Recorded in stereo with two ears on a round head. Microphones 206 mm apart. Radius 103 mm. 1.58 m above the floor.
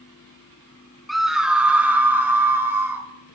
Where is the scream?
Centre (ahead or behind), 0.7 m; by 3.0 s 10° right (ahead or behind), 1.7 m.